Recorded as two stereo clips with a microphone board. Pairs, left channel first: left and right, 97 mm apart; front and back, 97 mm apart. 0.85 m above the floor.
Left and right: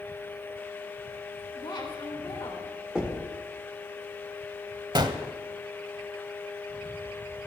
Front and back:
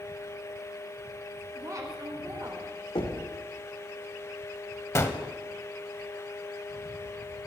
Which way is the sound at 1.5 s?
125° left.